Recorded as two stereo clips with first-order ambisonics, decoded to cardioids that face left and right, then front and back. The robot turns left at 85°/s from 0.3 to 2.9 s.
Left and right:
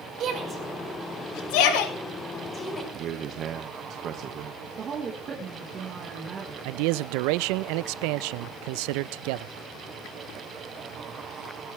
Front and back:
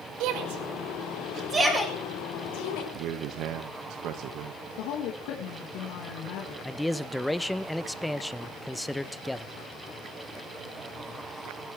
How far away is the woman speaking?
About 4 m.